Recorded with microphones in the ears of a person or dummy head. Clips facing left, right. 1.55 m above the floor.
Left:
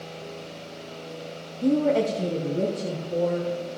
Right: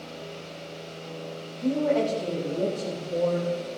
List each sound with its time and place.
1.6 s a woman speaking: 55° left (ahead or behind), 1.1 m; by 3.8 s 20° left (ahead or behind), 3 m